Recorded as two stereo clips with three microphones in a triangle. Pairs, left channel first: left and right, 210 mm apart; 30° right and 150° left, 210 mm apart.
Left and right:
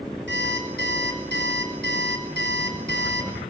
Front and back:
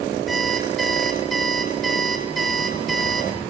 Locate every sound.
0.3 s an alarm clock: 120° right, 5.5 m